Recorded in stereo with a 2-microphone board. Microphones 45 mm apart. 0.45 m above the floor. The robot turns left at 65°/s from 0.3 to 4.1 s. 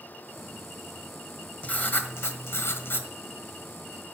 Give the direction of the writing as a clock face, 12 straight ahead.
7 o'clock.